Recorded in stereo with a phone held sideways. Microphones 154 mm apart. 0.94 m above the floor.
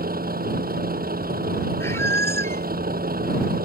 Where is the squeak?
15° left (ahead or behind).